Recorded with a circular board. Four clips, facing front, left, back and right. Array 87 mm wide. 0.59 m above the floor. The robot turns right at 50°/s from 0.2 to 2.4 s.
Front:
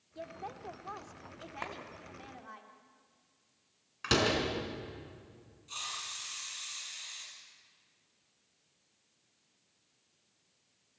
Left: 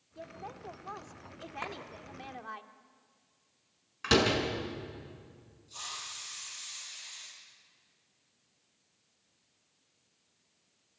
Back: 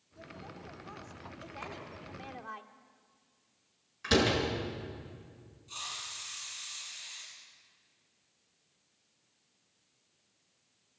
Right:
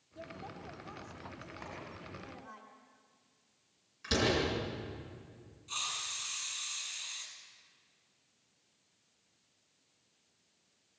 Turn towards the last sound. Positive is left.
turn(degrees=-75)